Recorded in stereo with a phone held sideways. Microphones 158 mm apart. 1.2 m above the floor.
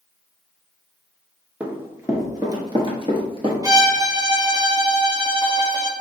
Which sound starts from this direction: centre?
Running footsteps, at 1.6 s.